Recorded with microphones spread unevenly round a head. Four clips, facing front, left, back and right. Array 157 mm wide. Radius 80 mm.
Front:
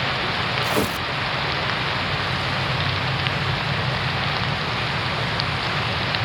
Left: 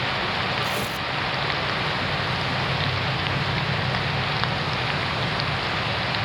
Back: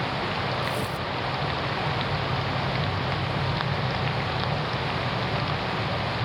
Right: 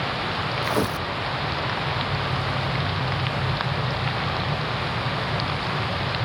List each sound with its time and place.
0.6 s tearing paper: 45° right, 0.7 m